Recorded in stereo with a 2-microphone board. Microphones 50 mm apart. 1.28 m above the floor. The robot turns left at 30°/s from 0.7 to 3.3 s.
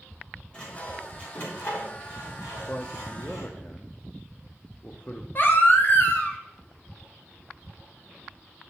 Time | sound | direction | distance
0.5 | sawing | 15° left (ahead or behind) | 3 m
2.7 | a man speaking | 55° left (ahead or behind) | 0.5 m
5.3 | a baby crying | 40° left (ahead or behind) | 0.9 m